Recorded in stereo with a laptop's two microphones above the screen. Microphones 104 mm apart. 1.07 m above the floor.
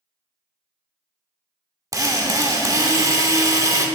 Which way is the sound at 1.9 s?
30° right (ahead or behind).